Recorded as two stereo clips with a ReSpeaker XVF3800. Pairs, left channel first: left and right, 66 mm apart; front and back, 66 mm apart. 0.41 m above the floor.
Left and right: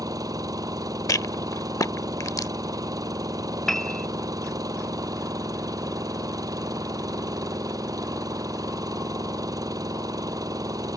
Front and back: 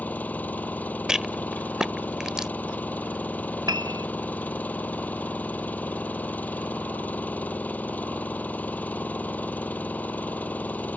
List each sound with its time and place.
0.0 s an engine running: 65° right
1.1 s a rattle: 100° left
3.7 s a piano: 175° left